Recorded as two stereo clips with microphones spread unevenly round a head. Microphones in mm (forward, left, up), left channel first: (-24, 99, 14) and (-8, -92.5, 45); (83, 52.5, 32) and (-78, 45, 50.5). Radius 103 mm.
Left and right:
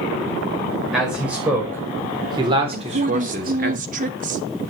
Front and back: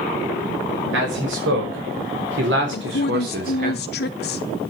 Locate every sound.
0.9 s a man speaking: 170° right, 5 m; by 3.7 s 125° right, 3.5 m
2.7 s a woman speaking: 30° right, 0.8 m